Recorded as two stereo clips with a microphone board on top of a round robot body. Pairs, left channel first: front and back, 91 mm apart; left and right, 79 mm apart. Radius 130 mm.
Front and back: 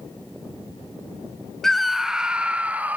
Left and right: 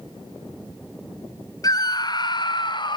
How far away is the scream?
About 1.0 m.